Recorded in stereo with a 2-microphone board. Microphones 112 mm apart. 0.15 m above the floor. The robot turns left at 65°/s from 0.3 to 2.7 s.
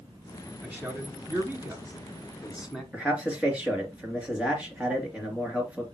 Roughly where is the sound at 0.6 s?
Centre.